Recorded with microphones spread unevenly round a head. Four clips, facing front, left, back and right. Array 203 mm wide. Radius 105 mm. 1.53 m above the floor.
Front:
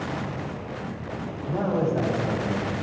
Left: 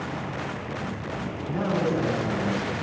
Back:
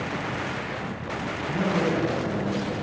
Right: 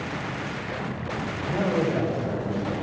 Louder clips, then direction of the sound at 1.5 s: Right 1 dB, front 1 dB; 50° right.